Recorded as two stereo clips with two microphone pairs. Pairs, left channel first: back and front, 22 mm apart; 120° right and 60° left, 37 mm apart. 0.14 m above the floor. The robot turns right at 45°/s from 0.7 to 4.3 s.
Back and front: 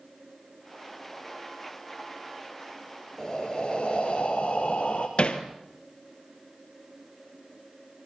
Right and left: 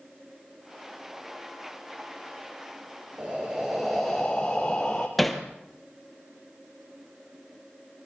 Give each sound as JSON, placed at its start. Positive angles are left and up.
{"t": 3.2, "sound": "breathing", "azimuth_deg": 115, "distance_m": 4.0}
{"t": 5.2, "sound": "hammering", "azimuth_deg": 150, "distance_m": 2.5}